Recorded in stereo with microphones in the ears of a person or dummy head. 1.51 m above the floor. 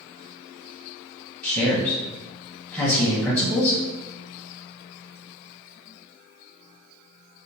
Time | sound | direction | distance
1.4 | a man speaking | 5° left (ahead or behind) | 1.0 m